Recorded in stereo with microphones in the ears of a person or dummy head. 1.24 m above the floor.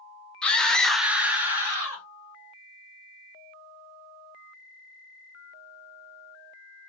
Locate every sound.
0.4 s a scream: centre (ahead or behind), 1.0 m